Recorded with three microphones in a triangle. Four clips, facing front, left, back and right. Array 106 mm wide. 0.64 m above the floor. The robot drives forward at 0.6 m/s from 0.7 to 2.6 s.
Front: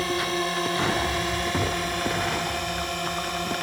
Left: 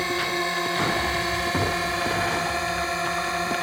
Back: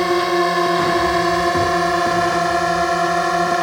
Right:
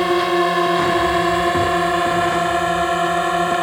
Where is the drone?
135° right; by 3.6 s 140° right.